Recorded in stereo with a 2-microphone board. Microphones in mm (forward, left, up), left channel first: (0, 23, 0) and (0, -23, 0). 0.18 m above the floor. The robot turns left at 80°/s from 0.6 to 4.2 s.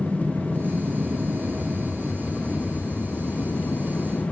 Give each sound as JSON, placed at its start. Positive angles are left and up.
{"t": 0.0, "sound": "an aircraft", "azimuth_deg": -35}